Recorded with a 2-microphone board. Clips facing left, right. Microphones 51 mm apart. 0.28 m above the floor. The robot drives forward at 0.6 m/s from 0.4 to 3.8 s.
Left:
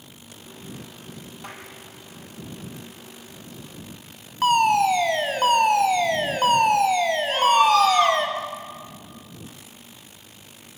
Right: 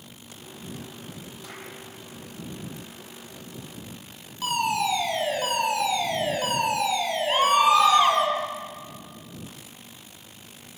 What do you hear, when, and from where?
1.4 s a clap: 50° left (ahead or behind), 6 m
4.4 s a fire alarm: 50° left (ahead or behind), 3 m
7.3 s a scream: 20° right (ahead or behind), 6 m